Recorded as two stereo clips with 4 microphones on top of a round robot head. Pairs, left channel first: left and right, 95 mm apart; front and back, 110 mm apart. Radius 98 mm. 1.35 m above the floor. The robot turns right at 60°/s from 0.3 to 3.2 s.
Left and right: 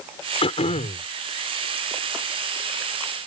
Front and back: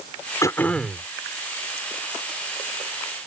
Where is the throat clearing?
60° left; by 1.1 s 100° left.